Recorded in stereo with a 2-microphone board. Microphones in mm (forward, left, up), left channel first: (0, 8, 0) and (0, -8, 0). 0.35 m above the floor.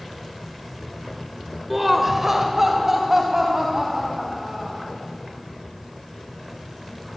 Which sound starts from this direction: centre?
Laughter, at 1.7 s.